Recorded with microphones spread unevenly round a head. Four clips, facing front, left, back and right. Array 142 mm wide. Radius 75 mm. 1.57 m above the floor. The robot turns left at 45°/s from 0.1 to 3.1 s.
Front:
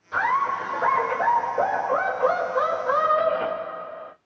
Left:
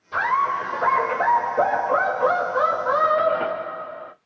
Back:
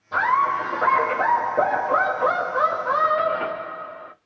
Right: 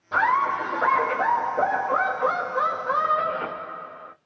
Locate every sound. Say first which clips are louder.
0.1 s laughter: even, back 3 dB; 120° right, 1.2 m; by 4.1 s 105° left, 1.2 m